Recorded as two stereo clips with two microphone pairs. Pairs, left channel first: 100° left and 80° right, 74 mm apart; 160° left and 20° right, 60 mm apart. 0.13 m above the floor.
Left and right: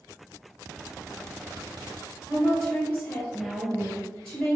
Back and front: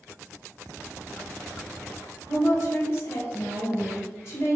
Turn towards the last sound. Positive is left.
turn(degrees=170)